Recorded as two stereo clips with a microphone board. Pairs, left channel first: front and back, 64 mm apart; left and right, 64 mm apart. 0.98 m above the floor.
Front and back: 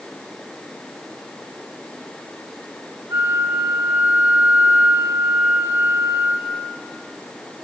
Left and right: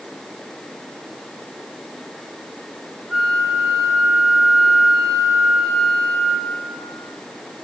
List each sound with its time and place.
3.1 s a flute: 160° right, 5.5 m